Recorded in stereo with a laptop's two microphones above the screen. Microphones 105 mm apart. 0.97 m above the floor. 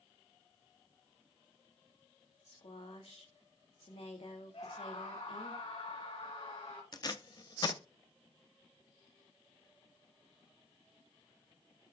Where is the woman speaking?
75° left (ahead or behind), 2 m.